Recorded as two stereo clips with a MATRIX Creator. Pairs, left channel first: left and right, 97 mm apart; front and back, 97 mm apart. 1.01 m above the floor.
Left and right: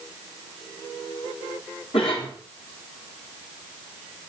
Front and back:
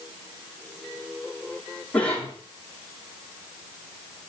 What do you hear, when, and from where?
1.9 s a cough: 75° left, 2.5 m